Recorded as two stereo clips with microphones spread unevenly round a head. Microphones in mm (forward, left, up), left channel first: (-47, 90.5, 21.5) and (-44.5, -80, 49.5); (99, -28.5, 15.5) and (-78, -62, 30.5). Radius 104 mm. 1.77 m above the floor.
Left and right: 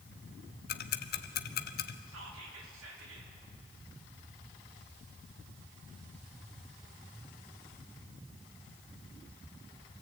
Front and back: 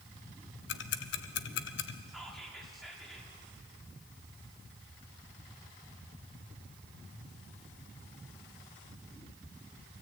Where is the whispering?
80° right, 4 m.